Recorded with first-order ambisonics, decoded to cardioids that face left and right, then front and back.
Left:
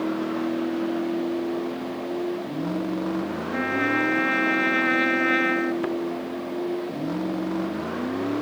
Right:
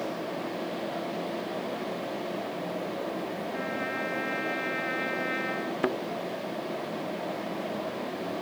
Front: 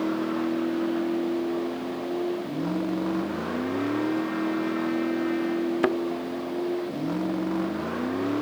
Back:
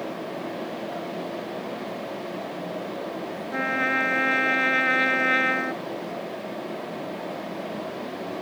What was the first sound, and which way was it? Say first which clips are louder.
A vehicle: left 6 dB, front 5 dB; 45° left.